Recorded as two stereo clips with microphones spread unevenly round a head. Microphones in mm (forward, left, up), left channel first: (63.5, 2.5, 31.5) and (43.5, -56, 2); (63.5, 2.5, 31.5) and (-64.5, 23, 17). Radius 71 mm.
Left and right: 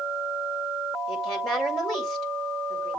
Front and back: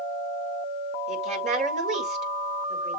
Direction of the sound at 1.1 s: 135° left.